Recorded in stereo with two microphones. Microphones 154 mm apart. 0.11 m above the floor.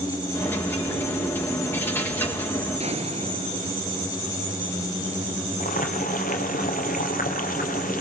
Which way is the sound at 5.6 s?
60° left (ahead or behind).